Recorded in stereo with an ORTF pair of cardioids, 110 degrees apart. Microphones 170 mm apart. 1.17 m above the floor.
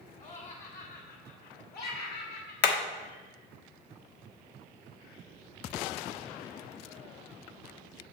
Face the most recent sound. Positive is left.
turn(degrees=70)